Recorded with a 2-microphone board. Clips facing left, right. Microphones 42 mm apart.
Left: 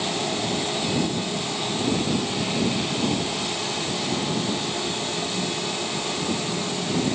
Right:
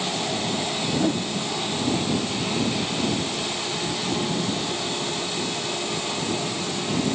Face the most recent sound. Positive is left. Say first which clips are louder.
# right 1 dB
turn(degrees=-45)  # may be behind; listen again after turning